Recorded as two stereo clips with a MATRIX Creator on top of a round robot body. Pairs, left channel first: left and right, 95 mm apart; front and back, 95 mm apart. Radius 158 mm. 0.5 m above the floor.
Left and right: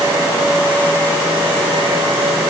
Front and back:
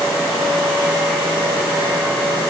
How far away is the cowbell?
No cowbell in this recording.